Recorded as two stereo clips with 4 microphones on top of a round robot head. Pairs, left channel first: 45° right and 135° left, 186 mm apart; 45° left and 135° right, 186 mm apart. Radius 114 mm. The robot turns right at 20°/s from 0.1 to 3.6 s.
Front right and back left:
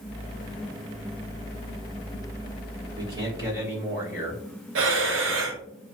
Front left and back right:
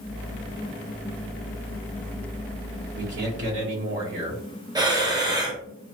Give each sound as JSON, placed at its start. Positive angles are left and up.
{"t": 3.0, "sound": "a man speaking", "azimuth_deg": -160, "distance_m": 2.5}
{"t": 4.8, "sound": "breathing", "azimuth_deg": 155, "distance_m": 1.0}